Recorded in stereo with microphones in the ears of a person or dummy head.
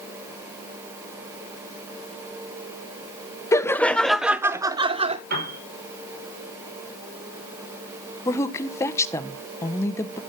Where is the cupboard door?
No cupboard door in this recording.